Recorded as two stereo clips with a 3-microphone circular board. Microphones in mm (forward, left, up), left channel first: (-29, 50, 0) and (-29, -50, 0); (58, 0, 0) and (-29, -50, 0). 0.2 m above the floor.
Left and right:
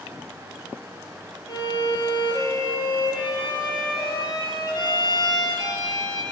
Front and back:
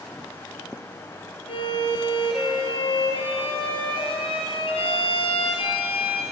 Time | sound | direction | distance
1.5 | a violin | 45° left | 2.5 m